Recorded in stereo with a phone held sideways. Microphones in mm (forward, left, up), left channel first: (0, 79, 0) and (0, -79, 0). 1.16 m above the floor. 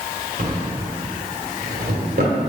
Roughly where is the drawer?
Right.